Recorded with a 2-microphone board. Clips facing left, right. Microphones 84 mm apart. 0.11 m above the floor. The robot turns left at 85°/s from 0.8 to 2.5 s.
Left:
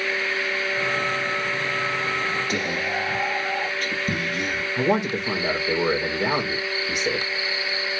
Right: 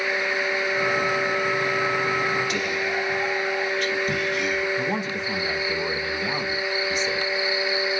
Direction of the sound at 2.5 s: 40° left (ahead or behind).